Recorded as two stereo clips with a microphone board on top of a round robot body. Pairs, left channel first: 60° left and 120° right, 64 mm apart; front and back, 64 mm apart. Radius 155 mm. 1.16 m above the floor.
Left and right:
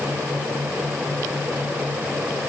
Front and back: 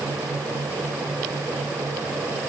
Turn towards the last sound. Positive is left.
No sound to turn to.